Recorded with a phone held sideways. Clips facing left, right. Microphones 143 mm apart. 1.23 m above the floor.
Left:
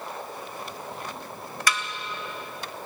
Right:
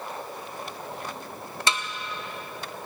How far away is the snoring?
I don't hear snoring.